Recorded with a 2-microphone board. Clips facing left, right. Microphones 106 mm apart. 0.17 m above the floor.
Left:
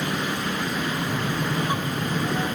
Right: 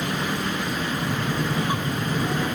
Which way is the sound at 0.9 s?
5° right (ahead or behind).